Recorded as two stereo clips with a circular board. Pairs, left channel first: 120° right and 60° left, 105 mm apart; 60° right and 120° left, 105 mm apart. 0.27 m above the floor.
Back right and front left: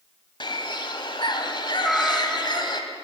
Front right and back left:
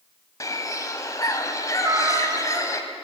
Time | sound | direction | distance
0.4 | a bird | 105° right | 1.1 m
1.8 | a cat meowing | 155° left | 0.6 m